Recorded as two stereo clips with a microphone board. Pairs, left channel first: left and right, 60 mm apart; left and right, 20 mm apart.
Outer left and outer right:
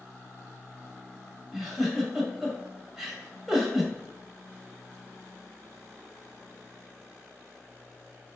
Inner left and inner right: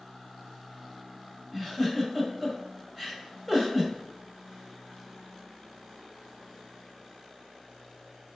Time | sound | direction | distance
1.5 | a giggle | 5° right (ahead or behind) | 0.7 m